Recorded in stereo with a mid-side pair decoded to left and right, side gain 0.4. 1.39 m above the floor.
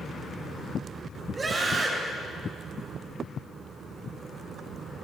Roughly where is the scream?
Ahead right.